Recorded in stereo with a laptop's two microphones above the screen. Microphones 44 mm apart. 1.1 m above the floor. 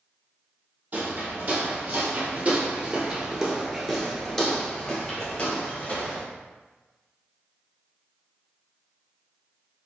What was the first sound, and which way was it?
Footsteps, 45° right (ahead or behind).